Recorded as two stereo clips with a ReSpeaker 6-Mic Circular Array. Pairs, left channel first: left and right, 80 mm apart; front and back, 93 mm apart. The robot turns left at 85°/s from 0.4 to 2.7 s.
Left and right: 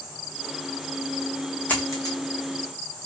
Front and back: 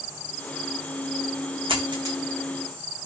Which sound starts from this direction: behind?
A dropped coin, at 1.7 s.